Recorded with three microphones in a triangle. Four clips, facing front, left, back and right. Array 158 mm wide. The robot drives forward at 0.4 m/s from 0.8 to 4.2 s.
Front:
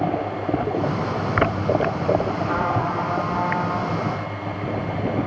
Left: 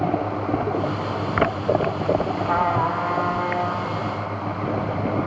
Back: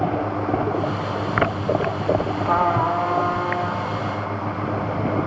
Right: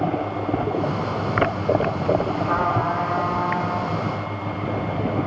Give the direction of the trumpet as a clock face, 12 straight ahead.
6 o'clock.